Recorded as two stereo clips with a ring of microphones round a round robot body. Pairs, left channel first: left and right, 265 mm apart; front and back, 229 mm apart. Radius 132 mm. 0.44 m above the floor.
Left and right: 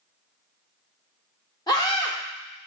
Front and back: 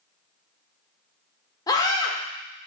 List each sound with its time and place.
1.7 s a scream: 45° left, 0.8 m